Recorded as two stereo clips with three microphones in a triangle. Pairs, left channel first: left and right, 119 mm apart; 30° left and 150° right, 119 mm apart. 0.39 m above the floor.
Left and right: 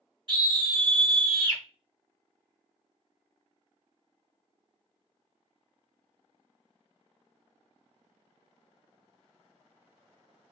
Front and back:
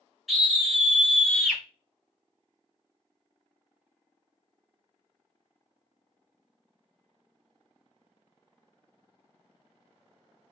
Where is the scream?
60° right, 2.0 m.